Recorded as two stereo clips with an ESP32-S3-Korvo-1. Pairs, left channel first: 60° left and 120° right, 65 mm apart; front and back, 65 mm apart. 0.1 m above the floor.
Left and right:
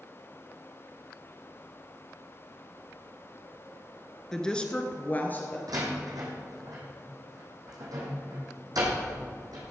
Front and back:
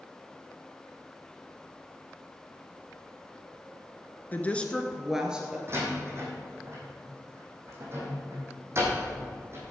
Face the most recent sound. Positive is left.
turn(degrees=-135)